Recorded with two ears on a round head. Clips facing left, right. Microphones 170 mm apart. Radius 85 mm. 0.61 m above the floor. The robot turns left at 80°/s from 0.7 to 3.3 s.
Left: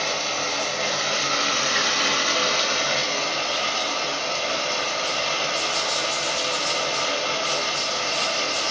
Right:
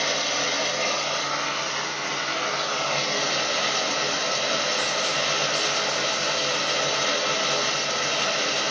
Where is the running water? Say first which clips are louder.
Even; 170° right, 1.7 m; by 8.7 s 20° right, 1.7 m.